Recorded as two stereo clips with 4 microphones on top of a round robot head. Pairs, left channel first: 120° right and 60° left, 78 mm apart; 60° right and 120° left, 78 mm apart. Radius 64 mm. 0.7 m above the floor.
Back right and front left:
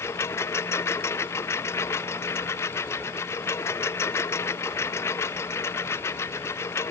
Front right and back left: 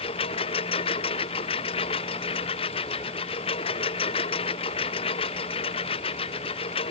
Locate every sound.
0.0 s a lawn mower: 60° right